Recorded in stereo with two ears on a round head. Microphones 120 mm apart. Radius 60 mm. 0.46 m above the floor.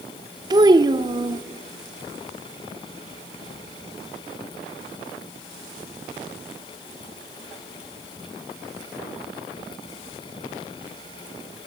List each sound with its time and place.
0.5 s a child speaking: 30° right (ahead or behind), 0.5 m